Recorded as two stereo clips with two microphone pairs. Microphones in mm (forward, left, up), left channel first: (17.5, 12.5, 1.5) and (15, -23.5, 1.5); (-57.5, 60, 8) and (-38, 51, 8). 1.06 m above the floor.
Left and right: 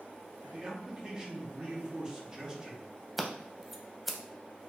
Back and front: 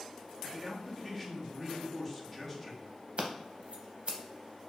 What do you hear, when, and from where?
0.5 s a man speaking: 135° right, 0.7 m
3.2 s scissors: 5° right, 0.6 m